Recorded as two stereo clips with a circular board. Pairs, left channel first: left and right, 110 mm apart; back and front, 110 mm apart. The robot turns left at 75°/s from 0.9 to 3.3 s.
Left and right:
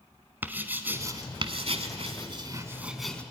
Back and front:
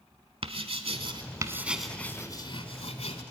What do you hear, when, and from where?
0.4 s writing: 20° right, 1.1 m; by 3.2 s 165° left, 1.1 m